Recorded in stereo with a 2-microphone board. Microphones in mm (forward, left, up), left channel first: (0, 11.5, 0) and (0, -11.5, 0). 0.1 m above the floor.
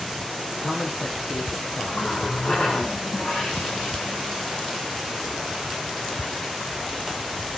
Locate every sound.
0.5 s a man speaking: 65° left (ahead or behind), 4.5 m; by 2.9 s 50° left (ahead or behind), 2.5 m
1.9 s a running tap: 45° left (ahead or behind), 6 m